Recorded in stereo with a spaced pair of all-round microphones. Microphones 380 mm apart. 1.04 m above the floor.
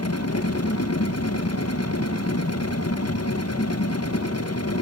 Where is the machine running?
40° left (ahead or behind), 1.1 m.